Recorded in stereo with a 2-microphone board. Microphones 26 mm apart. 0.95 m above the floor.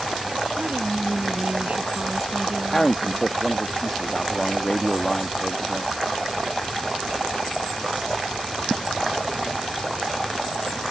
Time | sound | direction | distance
0.6 | a woman speaking | 70° right (ahead or behind) | ?
2.7 | a man speaking | 15° left (ahead or behind) | ?